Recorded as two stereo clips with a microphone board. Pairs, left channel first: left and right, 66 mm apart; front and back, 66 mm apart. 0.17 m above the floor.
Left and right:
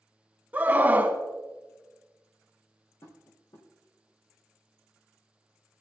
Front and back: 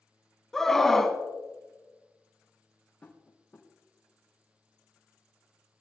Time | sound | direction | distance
0.5 | a scream | 75° right | 1.4 m
3.0 | tapping | 65° left | 3.5 m